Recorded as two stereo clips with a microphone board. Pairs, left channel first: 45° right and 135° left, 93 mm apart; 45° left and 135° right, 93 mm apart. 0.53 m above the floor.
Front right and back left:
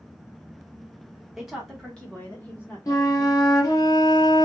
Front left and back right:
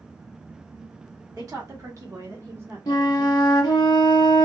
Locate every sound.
1.4 s a woman speaking: 140° right, 1.3 m; by 3.9 s 65° right, 1.6 m
2.9 s a flute: 5° left, 0.8 m